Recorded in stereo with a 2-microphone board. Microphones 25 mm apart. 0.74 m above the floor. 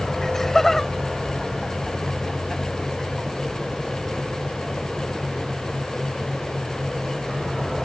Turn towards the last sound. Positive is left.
turn(degrees=5)  # may be behind; listen again after turning